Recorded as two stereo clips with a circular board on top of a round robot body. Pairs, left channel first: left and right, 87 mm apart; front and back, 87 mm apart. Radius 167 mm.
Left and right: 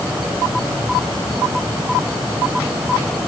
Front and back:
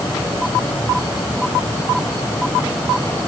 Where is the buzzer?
No buzzer in this recording.